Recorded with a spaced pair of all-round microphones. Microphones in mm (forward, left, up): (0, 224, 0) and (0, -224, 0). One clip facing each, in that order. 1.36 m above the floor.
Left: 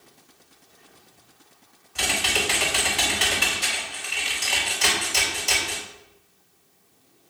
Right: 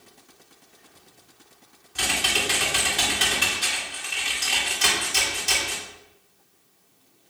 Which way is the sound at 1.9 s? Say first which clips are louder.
Left 2 dB; 35° right (ahead or behind).